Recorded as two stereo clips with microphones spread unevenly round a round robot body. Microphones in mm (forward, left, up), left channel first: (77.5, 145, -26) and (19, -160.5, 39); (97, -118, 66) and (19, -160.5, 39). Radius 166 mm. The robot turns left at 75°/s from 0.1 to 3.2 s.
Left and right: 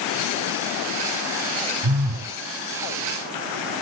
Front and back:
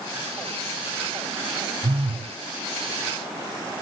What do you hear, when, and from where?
1.8 s a phone buzzing: 120° right, 1.3 m; by 2.4 s 160° right, 1.3 m